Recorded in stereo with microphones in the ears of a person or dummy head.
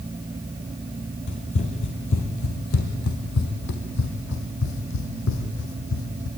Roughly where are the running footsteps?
Left.